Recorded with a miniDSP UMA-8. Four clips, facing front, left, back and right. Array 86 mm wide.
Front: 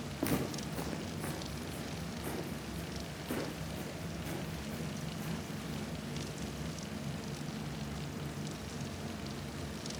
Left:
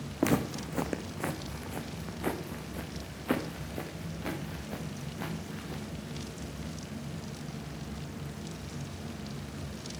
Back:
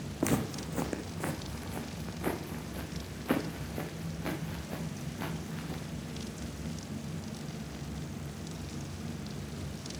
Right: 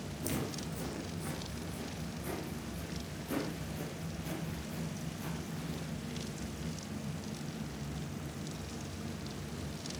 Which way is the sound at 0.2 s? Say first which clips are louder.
Left 10 dB, back 4 dB; 105° left.